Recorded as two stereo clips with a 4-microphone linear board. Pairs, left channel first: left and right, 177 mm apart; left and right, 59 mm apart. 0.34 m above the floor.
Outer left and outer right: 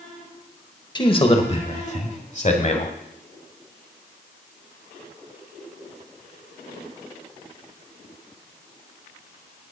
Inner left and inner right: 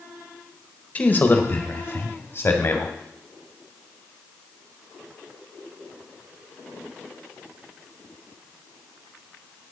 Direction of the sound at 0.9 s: 30° left (ahead or behind).